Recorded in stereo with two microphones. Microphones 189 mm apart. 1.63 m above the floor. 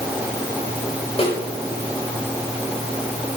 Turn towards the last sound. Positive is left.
turn(degrees=30)  # may be behind; listen again after turning